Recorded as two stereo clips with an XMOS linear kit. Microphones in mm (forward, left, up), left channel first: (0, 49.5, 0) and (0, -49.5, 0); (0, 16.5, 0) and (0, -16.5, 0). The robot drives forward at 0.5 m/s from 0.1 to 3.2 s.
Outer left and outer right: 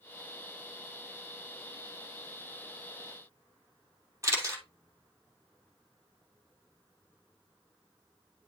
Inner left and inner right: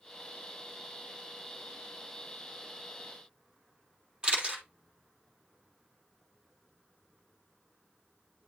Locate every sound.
4.2 s a camera shutter: 30° right (ahead or behind), 2.5 m